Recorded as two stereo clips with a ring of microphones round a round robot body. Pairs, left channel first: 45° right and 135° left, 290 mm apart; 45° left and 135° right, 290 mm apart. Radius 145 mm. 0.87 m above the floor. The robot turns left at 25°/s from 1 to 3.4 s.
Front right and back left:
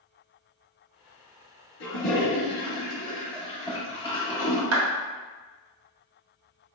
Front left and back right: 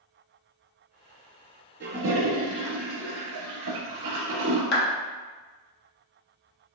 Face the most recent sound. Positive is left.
turn(degrees=100)